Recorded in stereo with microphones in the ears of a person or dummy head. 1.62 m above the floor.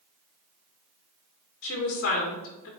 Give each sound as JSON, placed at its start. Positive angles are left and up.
{"t": 1.6, "sound": "a woman speaking", "side_deg": 60, "distance_m": 1.6}